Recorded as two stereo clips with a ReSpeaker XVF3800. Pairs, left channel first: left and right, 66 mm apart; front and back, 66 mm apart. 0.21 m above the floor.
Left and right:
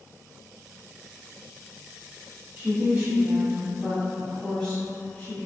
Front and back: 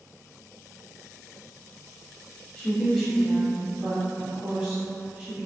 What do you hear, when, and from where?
2.6 s a woman speaking: 70° right, 1.3 m; by 5.5 s 125° left, 1.4 m